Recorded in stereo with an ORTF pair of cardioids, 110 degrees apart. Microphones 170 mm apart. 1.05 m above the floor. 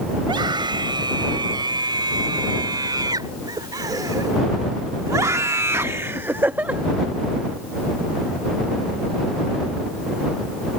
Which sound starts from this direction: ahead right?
A scream, at 0.2 s.